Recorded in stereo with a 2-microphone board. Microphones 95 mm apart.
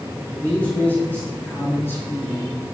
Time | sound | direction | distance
0.3 | a man speaking | 20° left (ahead or behind) | 8 m